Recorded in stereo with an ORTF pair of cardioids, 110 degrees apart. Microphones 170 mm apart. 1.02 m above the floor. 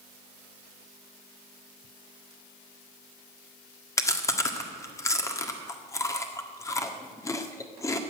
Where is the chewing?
20° left, 1.6 m.